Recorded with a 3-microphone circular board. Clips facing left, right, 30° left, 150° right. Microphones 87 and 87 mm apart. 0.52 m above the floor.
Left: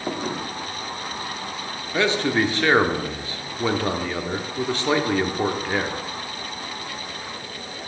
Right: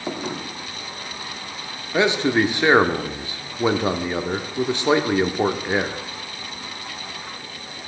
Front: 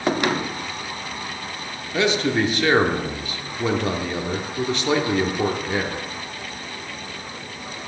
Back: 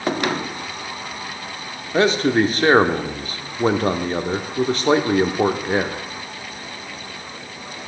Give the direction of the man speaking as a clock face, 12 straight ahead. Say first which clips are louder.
Right 2 dB, back 4 dB; 5 o'clock.